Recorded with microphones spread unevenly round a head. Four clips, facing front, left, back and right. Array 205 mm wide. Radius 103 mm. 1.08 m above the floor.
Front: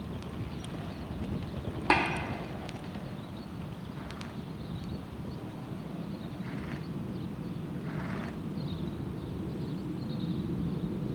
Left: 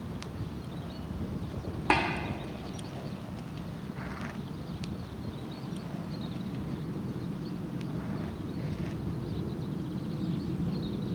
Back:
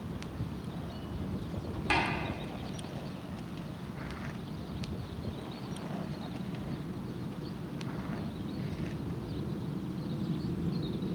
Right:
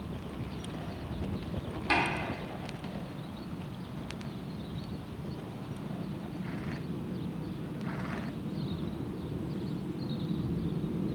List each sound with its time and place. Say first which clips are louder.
1.9 s tapping: left 3 dB, front 4 dB; 40° left, 1.5 m